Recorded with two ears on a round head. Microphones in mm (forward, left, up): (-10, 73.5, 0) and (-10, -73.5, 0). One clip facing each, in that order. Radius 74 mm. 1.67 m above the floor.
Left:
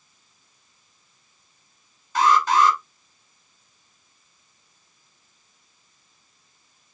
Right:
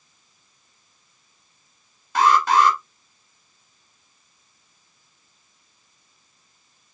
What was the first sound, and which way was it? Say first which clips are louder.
An alarm: right 1 dB; 50° right (ahead or behind).